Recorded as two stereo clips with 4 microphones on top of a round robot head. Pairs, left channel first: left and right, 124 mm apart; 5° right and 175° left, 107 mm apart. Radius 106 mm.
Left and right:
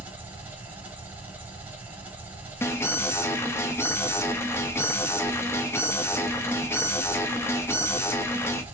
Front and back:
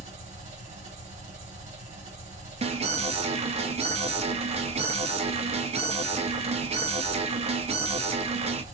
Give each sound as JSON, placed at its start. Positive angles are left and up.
{"t": 0.0, "sound": "an engine running", "azimuth_deg": -165, "distance_m": 1.3}
{"t": 2.6, "sound": "an alarm", "azimuth_deg": 160, "distance_m": 0.6}